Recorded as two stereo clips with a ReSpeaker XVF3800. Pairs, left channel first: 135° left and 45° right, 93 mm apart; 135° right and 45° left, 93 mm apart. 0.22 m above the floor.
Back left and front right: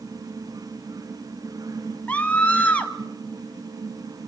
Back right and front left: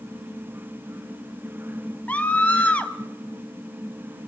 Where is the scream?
Straight behind, 1.0 m.